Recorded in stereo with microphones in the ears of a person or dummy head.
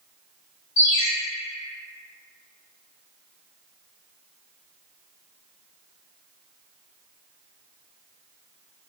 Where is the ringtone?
15° left (ahead or behind), 1.2 m.